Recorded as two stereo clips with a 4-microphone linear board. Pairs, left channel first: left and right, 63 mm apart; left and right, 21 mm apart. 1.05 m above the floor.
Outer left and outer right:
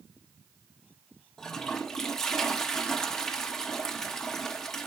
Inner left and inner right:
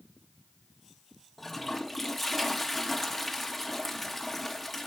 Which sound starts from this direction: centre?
A toilet flushing, at 1.4 s.